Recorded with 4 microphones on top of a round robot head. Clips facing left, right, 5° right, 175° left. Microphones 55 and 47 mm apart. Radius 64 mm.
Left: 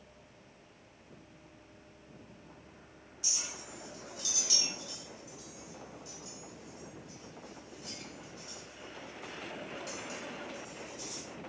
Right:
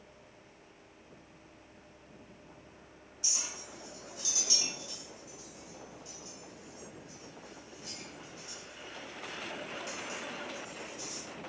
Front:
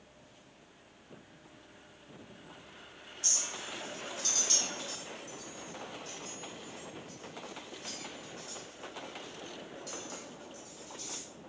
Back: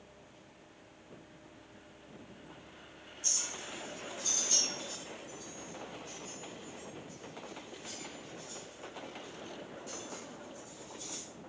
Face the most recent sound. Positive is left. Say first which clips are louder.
# right 1 dB, front 2 dB
turn(degrees=-30)